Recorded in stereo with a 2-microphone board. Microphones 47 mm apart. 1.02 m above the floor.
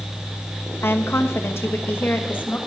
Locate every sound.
0.8 s a woman speaking: 65° left (ahead or behind), 1.2 m; by 2.6 s 40° left (ahead or behind), 1.6 m